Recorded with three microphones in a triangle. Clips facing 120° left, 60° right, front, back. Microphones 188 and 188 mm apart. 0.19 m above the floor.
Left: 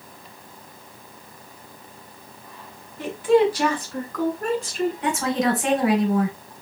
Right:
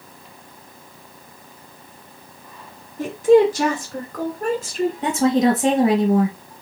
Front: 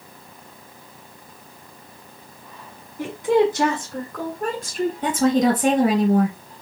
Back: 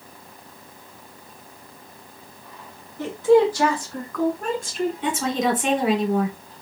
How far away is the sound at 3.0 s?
About 1.9 m.